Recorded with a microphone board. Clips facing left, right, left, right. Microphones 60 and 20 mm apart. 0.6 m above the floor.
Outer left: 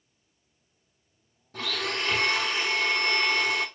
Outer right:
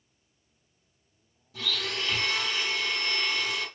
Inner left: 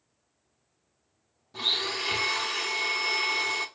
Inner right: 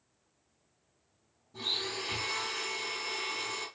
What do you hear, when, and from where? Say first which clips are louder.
1.5 s a blender: outer left 3 dB, inner left 6 dB; 55° left (ahead or behind), 0.7 m